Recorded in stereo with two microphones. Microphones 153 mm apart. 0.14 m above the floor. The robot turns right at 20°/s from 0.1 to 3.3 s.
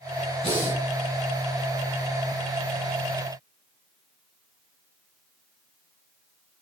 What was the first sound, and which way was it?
Breathing, 45° right (ahead or behind).